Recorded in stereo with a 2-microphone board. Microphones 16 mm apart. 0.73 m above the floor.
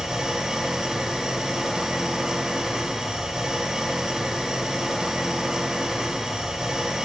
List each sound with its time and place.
0.0 s an engine running: 75° right (ahead or behind), 2.5 m